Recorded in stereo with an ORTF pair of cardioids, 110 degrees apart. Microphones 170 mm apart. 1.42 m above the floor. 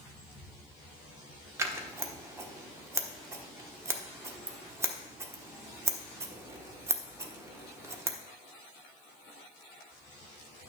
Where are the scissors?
15° right, 1.1 m.